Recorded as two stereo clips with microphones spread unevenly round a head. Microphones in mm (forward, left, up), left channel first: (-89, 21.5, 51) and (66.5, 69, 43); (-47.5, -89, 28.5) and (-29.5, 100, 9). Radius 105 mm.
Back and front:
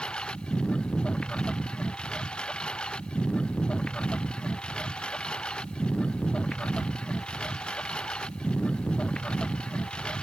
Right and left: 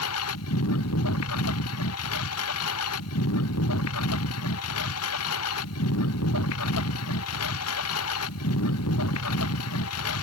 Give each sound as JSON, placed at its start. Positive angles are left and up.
{"t": 0.0, "sound": "a lawn mower", "azimuth_deg": -80}